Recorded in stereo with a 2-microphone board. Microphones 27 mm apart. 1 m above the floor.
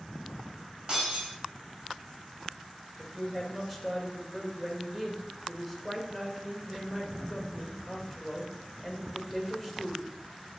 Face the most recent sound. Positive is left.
turn(degrees=-10)  # may be behind; listen again after turning